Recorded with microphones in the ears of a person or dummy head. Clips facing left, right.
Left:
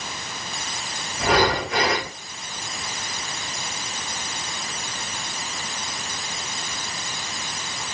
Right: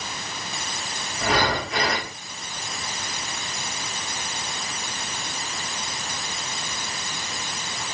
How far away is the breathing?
About 2.5 m.